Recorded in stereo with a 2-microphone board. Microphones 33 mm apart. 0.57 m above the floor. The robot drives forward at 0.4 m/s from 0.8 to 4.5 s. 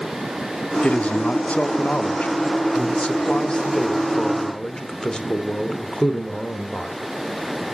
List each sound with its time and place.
0.8 s a man speaking: 40° left (ahead or behind), 0.9 m; by 7.0 s 20° left (ahead or behind), 1.4 m